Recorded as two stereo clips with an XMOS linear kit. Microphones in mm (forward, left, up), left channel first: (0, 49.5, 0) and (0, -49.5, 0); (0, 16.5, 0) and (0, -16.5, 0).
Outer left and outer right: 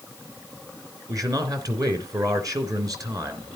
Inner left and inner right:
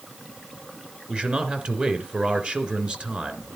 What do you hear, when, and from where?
1.1 s a man speaking: 35° right (ahead or behind), 2.5 m